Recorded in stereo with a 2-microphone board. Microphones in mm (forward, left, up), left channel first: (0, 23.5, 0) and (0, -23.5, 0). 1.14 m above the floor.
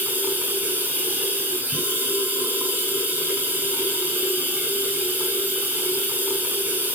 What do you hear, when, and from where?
0.0 s running water: 40° right (ahead or behind), 6.5 m